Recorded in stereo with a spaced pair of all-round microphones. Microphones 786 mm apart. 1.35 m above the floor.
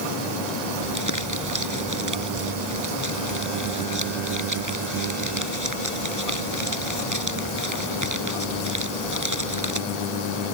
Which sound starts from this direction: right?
Crumpling, at 0.8 s.